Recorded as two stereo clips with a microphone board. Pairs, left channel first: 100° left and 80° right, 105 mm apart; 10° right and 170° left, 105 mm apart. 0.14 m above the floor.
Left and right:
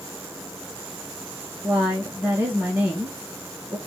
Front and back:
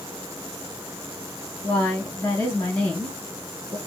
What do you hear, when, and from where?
1.6 s a woman speaking: 45° right, 1.2 m